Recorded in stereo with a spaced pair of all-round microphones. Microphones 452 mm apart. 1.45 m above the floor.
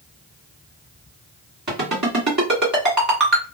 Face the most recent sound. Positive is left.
turn(degrees=-40)  # may be behind; listen again after turning